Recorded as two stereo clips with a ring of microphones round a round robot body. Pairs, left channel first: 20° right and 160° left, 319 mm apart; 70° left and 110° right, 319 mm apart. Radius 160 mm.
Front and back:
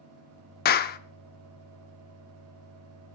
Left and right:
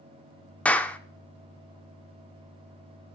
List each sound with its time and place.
0.7 s a clap: 15° right, 0.5 m